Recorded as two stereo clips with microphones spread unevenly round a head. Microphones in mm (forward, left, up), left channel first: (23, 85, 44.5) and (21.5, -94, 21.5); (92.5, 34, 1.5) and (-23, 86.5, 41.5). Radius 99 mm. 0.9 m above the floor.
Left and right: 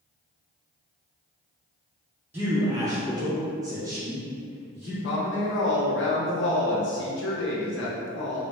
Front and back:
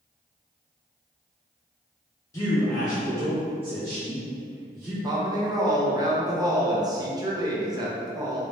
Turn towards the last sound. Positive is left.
turn(degrees=85)